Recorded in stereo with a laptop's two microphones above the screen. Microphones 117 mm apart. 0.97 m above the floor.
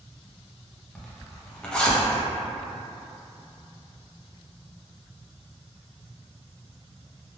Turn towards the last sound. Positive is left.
turn(degrees=10)  # may be behind; listen again after turning